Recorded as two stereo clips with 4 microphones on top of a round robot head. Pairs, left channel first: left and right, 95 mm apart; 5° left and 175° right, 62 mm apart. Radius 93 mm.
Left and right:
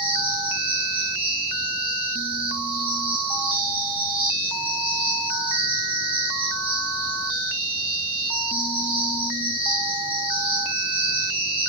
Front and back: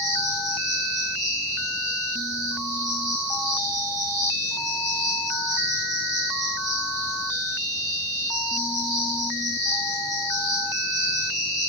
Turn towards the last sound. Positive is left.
turn(degrees=-165)